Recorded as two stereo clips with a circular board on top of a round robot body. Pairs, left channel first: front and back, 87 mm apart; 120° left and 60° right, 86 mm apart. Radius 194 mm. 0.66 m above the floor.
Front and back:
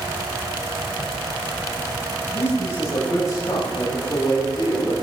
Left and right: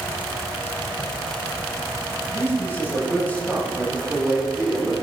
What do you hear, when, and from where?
2.3 s a man speaking: 60° left, 7 m; by 4.9 s 25° left, 7 m